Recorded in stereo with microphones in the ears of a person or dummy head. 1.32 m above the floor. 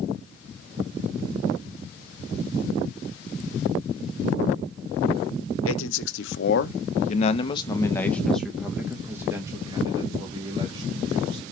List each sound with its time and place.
5.7 s a man speaking: 80° left, 1.3 m; by 11.4 s 35° right (ahead or behind), 2.5 m